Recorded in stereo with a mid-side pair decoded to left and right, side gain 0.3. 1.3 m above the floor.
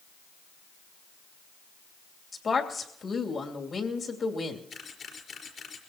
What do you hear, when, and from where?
2.3 s a woman speaking: 55° left, 3 m
4.7 s a camera shutter: 60° left, 4.5 m